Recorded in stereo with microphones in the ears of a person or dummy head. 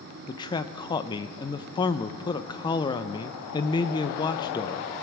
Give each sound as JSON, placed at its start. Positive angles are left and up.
{"t": 0.3, "sound": "a man speaking", "side_deg": 15, "distance_m": 0.5}